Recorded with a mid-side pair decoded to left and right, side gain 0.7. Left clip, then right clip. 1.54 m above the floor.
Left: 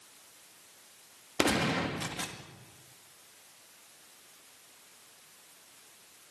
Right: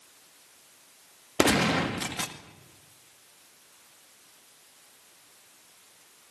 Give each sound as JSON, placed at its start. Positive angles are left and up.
{"t": 1.4, "sound": "a gunshot", "azimuth_deg": -25, "distance_m": 2.0}